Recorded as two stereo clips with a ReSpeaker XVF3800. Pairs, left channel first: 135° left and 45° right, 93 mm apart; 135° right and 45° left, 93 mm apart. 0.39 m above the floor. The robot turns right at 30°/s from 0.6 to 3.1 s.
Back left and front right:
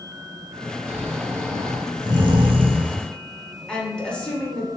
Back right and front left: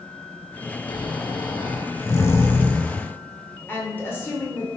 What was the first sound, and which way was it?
Snoring, 115° right.